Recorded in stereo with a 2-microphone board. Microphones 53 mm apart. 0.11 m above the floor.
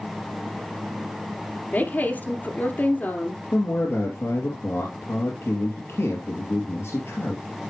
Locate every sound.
1.7 s a woman speaking: 35° left (ahead or behind), 1.8 m
3.5 s a man speaking: 55° left (ahead or behind), 2.5 m